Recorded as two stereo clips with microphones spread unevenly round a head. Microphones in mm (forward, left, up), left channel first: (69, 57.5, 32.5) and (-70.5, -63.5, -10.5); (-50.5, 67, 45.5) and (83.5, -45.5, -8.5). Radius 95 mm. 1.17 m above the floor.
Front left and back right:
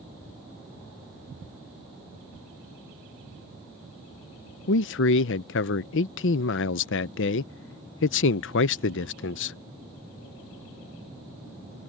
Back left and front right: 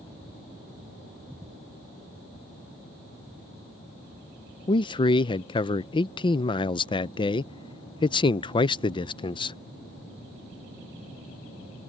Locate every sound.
4.7 s a man speaking: 70° left